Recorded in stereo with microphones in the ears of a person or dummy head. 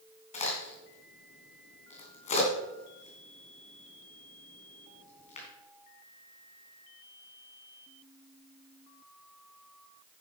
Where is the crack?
35° left (ahead or behind), 3 m.